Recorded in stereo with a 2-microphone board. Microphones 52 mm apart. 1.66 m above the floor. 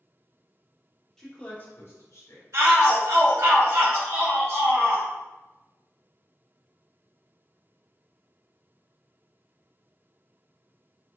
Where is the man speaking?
10° left (ahead or behind), 1.0 m; by 2.4 s 70° left (ahead or behind), 1.4 m.